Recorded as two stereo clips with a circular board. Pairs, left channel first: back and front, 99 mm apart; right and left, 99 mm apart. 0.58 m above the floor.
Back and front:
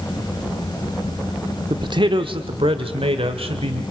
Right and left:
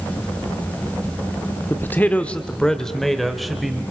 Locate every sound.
1.7 s a man speaking: 30° right, 1.0 m; by 3.8 s straight ahead, 2 m